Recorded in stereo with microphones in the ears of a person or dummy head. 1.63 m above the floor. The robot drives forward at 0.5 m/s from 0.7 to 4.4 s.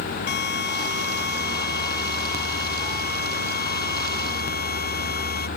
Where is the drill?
55° left (ahead or behind); by 5.5 s 50° left (ahead or behind).